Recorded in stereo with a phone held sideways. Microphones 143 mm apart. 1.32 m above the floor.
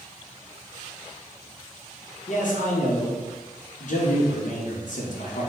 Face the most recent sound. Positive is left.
turn(degrees=65)  # may be behind; listen again after turning